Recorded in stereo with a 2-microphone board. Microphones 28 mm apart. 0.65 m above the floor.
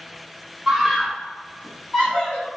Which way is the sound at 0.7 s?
15° right (ahead or behind).